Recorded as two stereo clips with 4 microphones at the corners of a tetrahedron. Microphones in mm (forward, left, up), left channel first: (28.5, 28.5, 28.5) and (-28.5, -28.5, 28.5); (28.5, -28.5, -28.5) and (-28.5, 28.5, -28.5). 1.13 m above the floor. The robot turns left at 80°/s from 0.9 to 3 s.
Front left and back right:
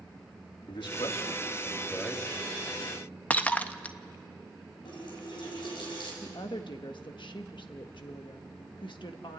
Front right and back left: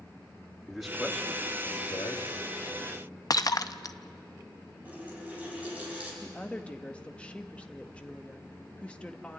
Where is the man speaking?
45° left, 2 m; by 2.2 s 60° right, 2 m.